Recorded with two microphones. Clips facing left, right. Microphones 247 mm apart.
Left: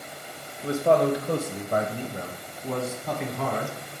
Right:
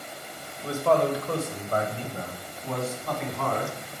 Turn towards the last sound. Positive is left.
turn(degrees=5)  # may be behind; listen again after turning